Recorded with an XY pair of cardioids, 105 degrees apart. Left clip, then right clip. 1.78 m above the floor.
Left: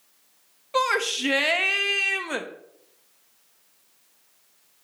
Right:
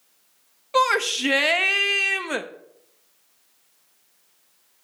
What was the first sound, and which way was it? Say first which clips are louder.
A shout: right 3 dB; 20° right.